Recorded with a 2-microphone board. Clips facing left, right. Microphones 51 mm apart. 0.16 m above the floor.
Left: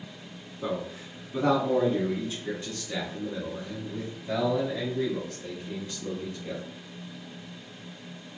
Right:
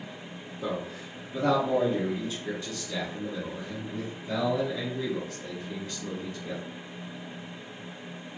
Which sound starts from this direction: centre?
A man speaking, at 0.6 s.